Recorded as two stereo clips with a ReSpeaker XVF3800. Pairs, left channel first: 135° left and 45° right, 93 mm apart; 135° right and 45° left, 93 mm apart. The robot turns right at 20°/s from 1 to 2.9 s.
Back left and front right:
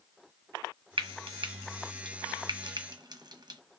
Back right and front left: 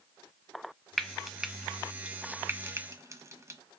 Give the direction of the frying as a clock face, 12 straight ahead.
2 o'clock.